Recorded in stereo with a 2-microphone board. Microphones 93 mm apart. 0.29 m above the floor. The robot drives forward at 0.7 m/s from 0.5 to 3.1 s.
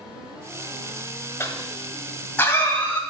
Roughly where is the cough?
Left.